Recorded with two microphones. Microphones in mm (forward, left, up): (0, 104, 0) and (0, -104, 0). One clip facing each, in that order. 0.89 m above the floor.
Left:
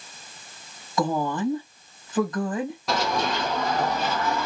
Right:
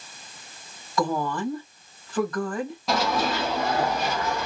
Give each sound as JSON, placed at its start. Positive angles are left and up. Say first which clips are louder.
{"t": 1.0, "sound": "a woman speaking", "louder": "left 1 dB", "side_deg": 20, "distance_m": 1.3}
{"t": 2.9, "sound": "running footsteps", "louder": "right 2 dB", "side_deg": 0, "distance_m": 1.4}